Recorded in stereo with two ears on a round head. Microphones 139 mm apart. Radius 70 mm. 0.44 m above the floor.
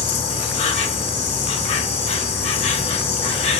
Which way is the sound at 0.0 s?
40° left (ahead or behind).